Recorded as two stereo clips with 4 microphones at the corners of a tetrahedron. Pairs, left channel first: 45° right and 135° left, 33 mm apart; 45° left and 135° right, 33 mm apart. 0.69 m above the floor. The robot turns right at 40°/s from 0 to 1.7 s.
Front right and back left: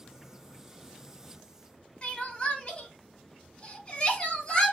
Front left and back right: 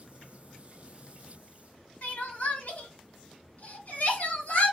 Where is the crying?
15° left, 1.5 m.